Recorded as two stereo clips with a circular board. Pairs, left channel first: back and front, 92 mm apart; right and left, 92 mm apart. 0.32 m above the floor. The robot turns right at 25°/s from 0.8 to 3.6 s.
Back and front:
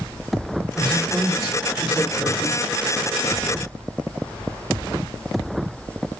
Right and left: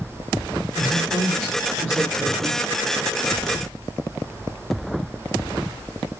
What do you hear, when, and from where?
0.8 s a woman speaking: 125° left, 5 m; by 2.6 s 170° left, 5 m